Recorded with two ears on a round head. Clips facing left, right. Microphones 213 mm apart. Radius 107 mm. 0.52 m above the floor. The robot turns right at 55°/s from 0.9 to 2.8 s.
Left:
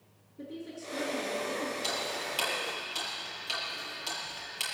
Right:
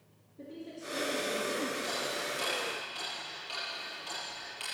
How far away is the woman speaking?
About 6 m.